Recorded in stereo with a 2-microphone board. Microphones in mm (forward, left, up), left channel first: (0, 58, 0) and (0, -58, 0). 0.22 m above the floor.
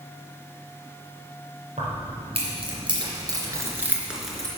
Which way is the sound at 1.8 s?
65° right (ahead or behind).